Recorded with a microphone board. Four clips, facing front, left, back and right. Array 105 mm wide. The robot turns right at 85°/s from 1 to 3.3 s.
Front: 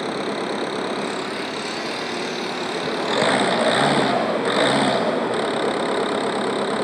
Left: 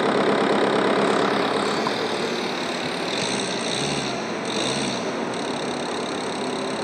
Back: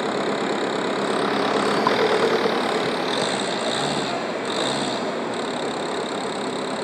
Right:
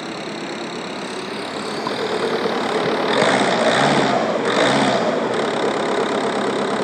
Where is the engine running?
100° left; by 6.8 s 60° right.